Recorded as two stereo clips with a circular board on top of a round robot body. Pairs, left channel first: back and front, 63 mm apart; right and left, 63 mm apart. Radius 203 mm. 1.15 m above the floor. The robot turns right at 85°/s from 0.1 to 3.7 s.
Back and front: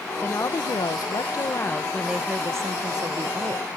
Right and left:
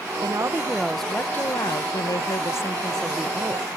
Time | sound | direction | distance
0.2 | a woman speaking | 120° left | ?